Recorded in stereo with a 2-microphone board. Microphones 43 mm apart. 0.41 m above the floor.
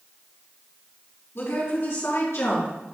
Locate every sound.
1.4 s a woman speaking: 70° left (ahead or behind), 3.5 m; by 2.7 s 75° left (ahead or behind), 5 m